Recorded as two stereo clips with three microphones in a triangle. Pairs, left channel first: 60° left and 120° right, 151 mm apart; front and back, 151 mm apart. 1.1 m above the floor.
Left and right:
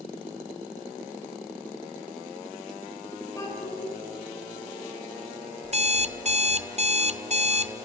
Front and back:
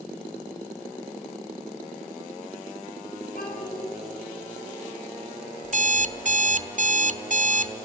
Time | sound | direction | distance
3.4 | a child speaking | 10° right | 4.5 m
5.6 | an alarm clock | 155° right | 0.6 m